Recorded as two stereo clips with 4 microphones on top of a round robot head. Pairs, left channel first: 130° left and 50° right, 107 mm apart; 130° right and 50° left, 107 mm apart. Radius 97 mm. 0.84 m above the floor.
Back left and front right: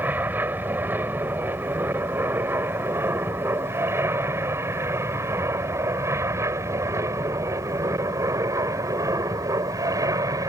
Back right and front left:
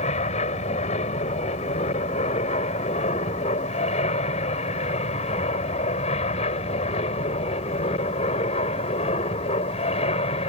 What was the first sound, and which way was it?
An aircraft, 120° right.